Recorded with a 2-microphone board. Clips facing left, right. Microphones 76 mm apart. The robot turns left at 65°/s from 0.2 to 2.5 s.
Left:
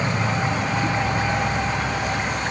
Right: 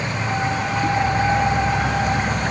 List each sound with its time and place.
0.0 s an insect: 85° left; by 2.5 s 65° right